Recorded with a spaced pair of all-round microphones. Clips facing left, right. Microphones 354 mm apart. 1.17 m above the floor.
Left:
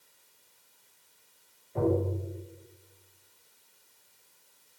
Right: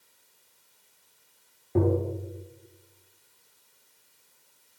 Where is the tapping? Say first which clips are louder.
Right 3 dB; 75° right (ahead or behind), 3 m.